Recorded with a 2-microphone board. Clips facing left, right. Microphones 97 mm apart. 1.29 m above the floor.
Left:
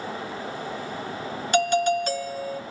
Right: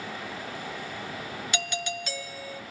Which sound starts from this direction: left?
A doorbell, at 1.5 s.